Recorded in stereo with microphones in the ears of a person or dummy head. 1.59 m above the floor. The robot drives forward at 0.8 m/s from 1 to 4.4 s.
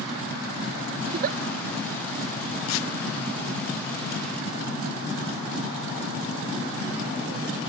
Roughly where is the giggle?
Right.